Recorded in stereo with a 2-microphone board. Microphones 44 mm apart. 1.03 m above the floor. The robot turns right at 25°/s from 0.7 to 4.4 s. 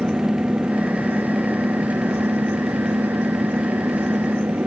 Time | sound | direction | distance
0.0 | an engine running | 150° right | ?